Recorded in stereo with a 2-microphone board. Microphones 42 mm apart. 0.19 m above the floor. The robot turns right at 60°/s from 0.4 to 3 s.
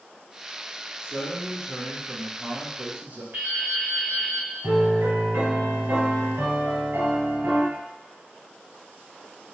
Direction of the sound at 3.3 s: 50° right (ahead or behind).